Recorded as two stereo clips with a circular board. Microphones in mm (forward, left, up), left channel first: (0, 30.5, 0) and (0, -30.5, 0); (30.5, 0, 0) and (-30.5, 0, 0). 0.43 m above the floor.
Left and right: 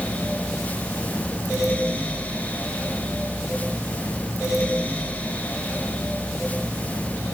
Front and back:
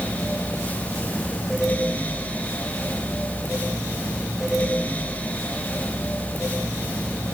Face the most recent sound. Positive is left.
No sound to turn to.